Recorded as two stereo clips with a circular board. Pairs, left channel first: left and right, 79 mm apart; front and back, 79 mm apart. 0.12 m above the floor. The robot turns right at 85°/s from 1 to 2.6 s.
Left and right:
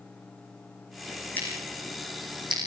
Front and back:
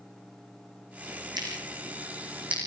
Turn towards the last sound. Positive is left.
turn(degrees=-100)